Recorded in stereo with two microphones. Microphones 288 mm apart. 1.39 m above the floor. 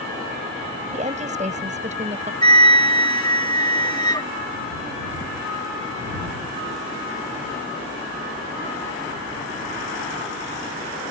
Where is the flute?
15° left (ahead or behind).